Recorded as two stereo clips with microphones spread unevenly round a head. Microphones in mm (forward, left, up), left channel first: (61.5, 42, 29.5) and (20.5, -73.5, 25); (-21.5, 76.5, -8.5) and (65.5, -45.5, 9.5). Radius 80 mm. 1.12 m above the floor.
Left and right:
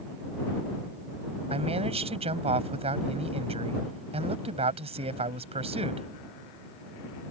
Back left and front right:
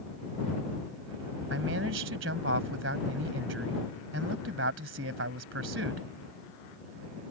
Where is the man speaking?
70° right.